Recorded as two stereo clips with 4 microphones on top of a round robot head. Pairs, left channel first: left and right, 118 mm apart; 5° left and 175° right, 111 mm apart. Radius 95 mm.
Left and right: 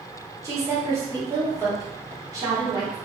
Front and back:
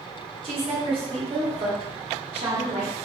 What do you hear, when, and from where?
0.4 s a woman speaking: 150° right, 1.3 m